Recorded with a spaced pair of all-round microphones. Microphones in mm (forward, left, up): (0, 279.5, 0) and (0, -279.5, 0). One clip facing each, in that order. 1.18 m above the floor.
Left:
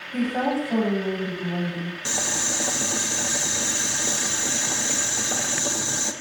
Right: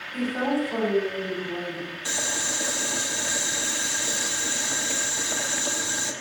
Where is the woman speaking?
80° left, 8.5 m.